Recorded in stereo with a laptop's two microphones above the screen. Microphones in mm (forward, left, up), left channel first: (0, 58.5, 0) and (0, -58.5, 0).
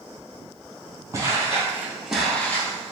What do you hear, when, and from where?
1.1 s footsteps: 25° right (ahead or behind), 1.7 m; by 2.9 s 25° left (ahead or behind), 1.1 m